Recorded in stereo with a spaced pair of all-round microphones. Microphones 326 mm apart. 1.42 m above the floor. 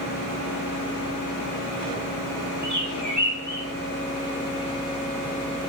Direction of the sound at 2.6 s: 60° right (ahead or behind).